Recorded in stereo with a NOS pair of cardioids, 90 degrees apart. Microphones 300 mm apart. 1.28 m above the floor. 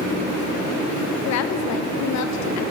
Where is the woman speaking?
70° left, 0.6 m.